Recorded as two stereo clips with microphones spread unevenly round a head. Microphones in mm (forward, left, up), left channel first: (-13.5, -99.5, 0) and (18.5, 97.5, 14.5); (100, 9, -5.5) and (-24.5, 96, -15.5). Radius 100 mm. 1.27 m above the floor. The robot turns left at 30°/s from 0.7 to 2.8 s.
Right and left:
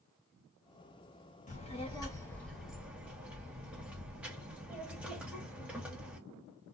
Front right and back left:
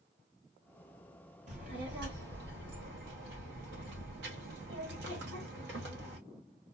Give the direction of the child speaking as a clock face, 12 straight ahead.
5 o'clock.